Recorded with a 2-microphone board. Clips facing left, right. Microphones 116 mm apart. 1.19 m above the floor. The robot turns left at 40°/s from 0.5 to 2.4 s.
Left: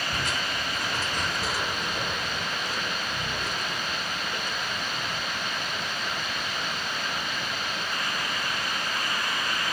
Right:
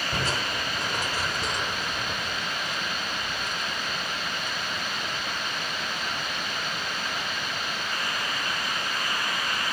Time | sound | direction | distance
0.1 | crushing | 35° right (ahead or behind) | ?